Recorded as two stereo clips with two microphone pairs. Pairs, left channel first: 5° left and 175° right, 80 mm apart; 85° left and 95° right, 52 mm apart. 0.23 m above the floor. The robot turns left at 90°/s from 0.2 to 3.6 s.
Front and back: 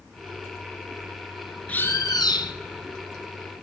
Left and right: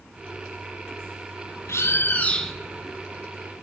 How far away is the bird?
About 1.3 m.